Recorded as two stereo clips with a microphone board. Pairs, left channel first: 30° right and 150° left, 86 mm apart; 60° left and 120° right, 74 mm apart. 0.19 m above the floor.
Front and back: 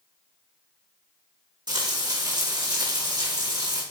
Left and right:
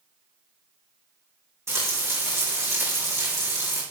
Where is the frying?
175° right, 4 m.